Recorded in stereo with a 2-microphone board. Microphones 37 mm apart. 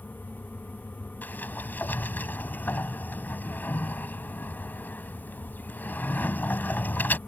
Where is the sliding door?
55° left (ahead or behind).